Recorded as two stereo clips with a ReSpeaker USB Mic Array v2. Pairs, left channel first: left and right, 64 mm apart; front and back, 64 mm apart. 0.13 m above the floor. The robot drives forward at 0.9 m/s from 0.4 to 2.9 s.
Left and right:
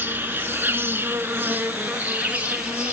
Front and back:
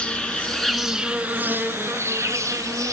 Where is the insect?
65° right, 1.2 m; by 2.9 s 160° right, 2 m.